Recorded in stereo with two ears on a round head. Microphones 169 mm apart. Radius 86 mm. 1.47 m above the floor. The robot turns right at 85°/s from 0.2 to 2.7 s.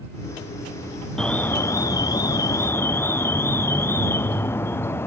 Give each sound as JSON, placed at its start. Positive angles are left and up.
{"t": 1.2, "sound": "an alarm", "side_deg": 5}